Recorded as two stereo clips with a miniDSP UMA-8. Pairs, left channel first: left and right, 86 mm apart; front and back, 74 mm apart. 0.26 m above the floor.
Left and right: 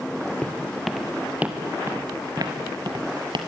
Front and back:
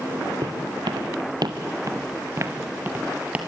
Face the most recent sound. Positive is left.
turn(degrees=-105)